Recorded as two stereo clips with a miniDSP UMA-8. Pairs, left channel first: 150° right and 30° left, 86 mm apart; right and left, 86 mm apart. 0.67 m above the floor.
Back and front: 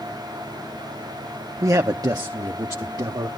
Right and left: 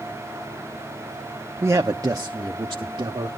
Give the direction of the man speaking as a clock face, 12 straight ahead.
10 o'clock.